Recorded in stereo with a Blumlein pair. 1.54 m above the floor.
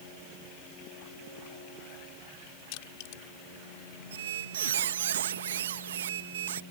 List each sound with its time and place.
2.7 s crushing: 45° left
4.1 s a squeak: 60° right